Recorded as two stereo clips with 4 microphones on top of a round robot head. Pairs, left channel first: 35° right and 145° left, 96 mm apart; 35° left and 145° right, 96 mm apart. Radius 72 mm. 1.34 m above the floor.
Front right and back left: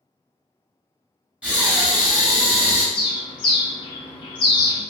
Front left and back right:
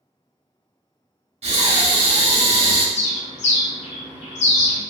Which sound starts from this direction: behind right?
Breathing, at 1.4 s.